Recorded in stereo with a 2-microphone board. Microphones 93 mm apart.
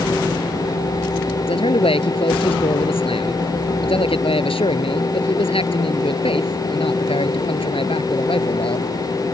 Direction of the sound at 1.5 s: 80° left.